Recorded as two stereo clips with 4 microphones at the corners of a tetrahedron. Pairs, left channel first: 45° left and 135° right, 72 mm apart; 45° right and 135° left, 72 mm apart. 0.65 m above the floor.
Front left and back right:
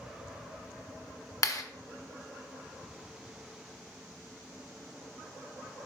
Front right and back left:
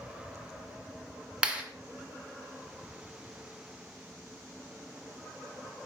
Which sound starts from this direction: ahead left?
A clap, at 1.4 s.